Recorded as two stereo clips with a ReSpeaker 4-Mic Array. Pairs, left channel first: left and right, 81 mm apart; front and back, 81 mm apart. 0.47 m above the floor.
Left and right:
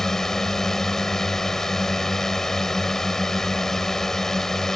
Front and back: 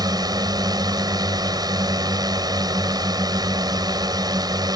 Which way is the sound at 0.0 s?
175° left.